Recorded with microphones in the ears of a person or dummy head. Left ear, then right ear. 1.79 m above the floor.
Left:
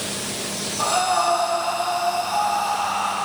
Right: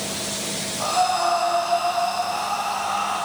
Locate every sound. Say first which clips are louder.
0.8 s breathing: left 1 dB; 50° left (ahead or behind), 5 m